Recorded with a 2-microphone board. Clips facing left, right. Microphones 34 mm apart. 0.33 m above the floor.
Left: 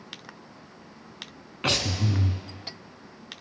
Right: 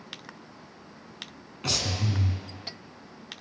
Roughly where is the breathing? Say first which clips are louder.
Left 4 dB; left.